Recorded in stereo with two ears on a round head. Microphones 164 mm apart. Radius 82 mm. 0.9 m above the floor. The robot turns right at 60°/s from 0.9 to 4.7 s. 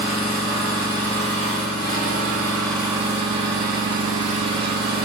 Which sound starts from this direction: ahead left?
An engine running, at 0.0 s.